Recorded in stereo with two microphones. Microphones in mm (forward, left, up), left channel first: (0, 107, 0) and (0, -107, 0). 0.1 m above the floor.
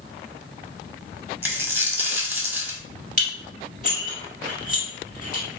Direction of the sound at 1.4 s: 10° right (ahead or behind).